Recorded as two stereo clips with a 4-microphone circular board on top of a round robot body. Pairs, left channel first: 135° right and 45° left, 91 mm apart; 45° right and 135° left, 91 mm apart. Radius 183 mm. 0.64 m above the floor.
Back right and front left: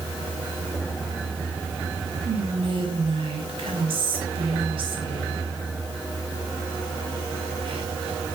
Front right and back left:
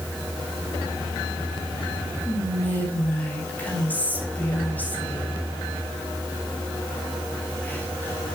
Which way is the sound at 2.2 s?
30° left.